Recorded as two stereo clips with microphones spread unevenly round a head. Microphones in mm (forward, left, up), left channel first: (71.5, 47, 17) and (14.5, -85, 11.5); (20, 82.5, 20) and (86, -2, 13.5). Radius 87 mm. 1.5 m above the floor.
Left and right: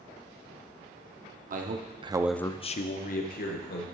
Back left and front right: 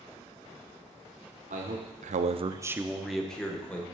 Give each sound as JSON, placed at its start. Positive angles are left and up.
{"t": 1.5, "sound": "a man speaking", "azimuth_deg": -85, "distance_m": 1.1}